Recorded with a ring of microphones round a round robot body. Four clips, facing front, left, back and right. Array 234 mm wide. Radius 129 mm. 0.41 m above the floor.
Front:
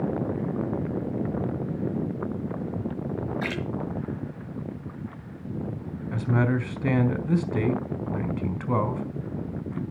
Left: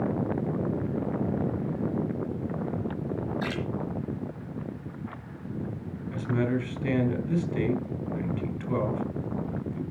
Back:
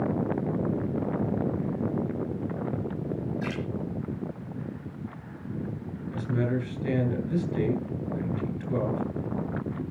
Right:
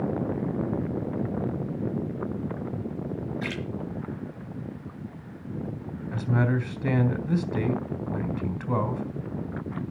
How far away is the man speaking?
About 4 m.